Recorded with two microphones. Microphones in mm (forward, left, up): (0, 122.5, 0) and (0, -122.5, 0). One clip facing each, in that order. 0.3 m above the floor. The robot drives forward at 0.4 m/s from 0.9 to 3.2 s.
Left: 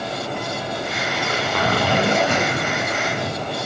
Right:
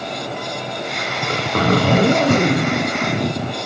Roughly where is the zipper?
Right.